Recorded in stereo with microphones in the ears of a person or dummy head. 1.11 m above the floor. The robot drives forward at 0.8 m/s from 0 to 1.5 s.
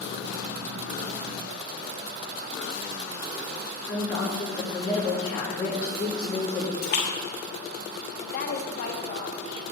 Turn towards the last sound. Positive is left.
turn(degrees=50)  # may be behind; listen again after turning